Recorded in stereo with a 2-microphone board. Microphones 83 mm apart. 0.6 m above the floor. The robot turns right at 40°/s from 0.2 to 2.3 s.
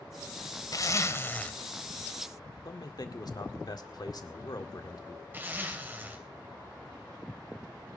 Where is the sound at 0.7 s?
130° left, 1.1 m; by 1.5 s 165° left, 1.1 m.